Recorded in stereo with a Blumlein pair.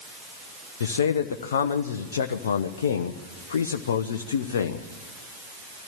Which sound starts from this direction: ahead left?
A man speaking, at 0.8 s.